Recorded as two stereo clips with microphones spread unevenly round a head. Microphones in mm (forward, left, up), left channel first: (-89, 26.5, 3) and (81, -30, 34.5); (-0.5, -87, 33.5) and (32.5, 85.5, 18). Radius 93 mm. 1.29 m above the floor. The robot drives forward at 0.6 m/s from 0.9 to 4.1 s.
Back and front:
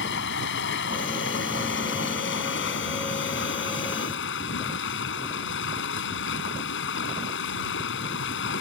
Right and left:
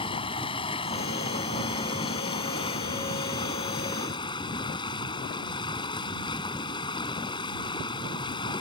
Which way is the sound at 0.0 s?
165° right.